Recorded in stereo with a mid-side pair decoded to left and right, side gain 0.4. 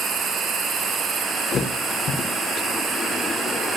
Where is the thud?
60° left, 8 m.